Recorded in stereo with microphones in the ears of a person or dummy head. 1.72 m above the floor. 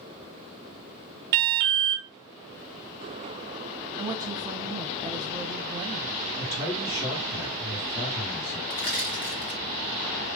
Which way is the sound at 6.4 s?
70° left (ahead or behind).